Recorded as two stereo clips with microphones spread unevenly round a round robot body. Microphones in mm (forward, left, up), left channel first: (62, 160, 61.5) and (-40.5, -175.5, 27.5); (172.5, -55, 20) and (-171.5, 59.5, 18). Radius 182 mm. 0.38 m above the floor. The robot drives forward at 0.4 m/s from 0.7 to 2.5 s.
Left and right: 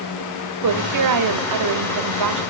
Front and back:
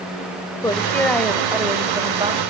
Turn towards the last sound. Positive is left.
turn(degrees=-125)